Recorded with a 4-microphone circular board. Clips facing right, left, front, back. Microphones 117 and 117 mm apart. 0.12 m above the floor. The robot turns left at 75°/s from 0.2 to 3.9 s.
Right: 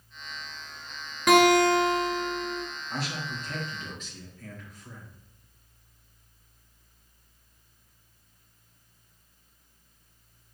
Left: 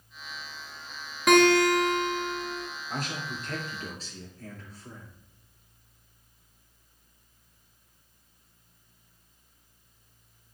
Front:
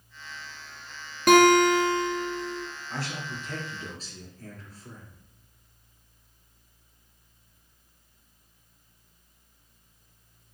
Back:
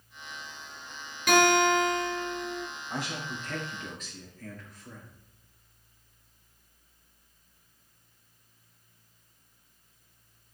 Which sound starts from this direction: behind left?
A man speaking, at 2.9 s.